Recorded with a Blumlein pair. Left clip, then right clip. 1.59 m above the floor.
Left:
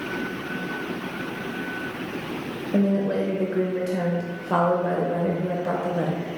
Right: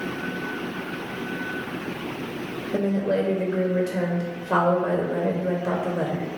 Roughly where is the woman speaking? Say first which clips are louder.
Even; ahead.